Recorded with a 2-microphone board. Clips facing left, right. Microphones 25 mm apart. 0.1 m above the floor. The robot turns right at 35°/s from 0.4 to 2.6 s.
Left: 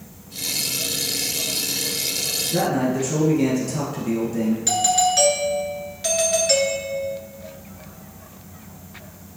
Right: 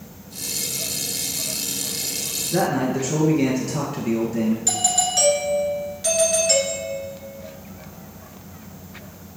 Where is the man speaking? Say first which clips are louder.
Right 1 dB; 20° right (ahead or behind), 1.5 m.